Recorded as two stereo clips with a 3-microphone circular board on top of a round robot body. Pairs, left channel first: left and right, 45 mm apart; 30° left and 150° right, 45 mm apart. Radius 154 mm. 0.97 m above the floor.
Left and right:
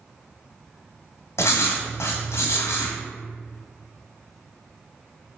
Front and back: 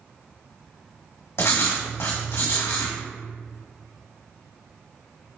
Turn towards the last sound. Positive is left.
turn(degrees=60)